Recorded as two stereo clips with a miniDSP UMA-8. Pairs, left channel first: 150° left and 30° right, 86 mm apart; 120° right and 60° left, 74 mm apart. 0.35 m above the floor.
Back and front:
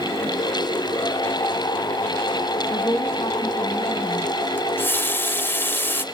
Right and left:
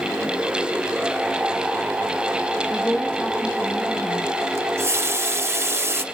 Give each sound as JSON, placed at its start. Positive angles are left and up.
{"t": 2.7, "sound": "a woman speaking", "azimuth_deg": 170, "distance_m": 1.8}
{"t": 4.6, "sound": "a running tap", "azimuth_deg": 100, "distance_m": 0.7}